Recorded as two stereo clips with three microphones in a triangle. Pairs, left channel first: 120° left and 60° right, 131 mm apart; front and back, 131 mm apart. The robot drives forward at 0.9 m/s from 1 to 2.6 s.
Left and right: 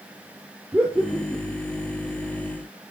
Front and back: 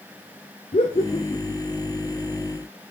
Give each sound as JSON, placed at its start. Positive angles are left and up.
{"t": 0.7, "sound": "laughter", "azimuth_deg": 10, "distance_m": 1.4}